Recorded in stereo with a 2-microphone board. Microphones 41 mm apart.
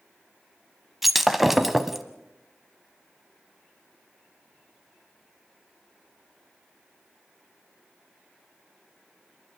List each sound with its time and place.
1.0 s breaking glass: 5° right (ahead or behind), 0.9 m